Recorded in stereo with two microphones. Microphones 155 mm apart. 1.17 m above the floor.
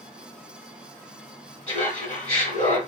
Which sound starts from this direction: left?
Laughter, at 1.7 s.